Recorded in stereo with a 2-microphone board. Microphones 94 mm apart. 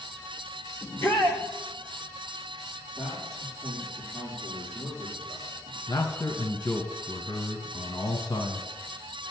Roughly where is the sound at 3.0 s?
Centre.